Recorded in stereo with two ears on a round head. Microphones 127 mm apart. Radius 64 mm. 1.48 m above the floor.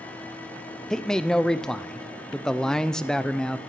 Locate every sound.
0.9 s a man speaking: 5° left (ahead or behind), 0.5 m